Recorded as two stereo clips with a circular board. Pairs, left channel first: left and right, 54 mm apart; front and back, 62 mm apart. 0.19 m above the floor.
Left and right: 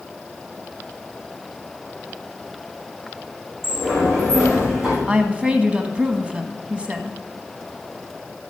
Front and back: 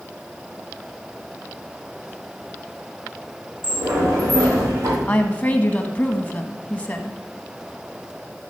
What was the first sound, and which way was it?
A sliding door, 175° right.